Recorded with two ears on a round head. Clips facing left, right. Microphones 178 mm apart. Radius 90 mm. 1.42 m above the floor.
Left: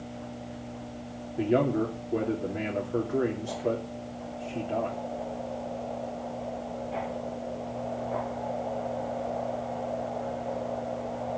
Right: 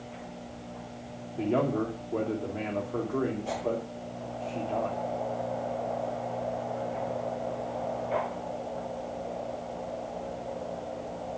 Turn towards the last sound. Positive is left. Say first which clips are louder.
# left 2 dB
turn(degrees=15)  # may be behind; listen again after turning